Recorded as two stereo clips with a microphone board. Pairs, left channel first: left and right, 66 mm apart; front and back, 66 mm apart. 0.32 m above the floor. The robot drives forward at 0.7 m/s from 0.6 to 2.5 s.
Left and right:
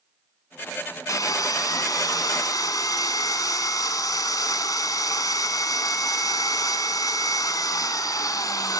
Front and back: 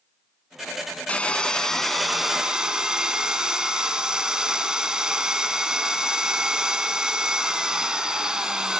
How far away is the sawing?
About 1.8 m.